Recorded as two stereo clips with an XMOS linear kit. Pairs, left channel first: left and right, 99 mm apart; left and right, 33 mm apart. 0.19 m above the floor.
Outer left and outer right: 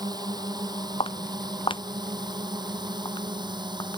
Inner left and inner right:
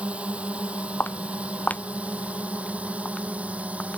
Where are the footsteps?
60° left (ahead or behind); by 4.0 s 40° left (ahead or behind).